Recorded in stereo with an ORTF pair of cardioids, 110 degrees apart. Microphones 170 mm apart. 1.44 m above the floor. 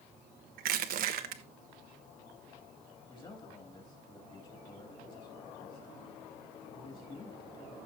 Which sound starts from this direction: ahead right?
Crushing, at 0.6 s.